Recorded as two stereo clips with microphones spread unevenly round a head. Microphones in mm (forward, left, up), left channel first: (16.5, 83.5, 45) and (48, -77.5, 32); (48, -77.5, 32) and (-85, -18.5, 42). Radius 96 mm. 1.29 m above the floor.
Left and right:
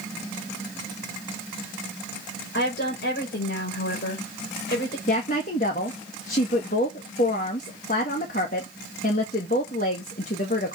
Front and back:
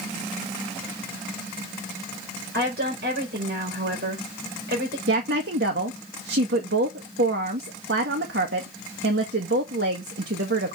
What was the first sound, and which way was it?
A woman speaking, 135° left.